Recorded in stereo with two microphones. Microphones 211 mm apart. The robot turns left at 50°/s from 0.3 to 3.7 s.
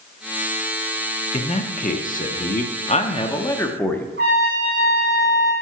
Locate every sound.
1.3 s a man speaking: 135° left, 0.6 m; by 4.1 s 15° left, 0.6 m
4.2 s a trumpet: 65° right (ahead or behind), 3 m